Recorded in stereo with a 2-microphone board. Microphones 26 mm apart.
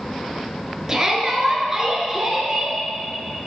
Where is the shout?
20° right (ahead or behind), 1.4 m.